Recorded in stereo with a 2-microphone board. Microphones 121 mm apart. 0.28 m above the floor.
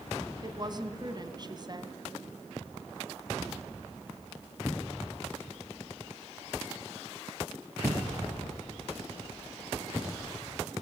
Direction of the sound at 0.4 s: 35° right (ahead or behind).